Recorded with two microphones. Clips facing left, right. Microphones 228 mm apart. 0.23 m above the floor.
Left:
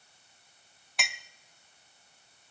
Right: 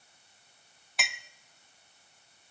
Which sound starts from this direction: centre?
A clink, at 1.0 s.